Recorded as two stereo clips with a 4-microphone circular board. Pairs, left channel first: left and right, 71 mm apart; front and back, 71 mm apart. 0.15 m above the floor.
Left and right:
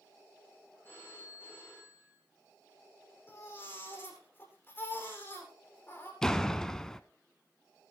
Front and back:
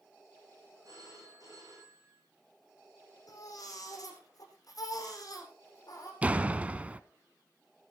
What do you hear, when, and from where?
0.8 s a phone ringing: 145° left, 7 m
3.3 s a baby crying: 30° left, 4.5 m
6.2 s a door slam: 155° left, 0.7 m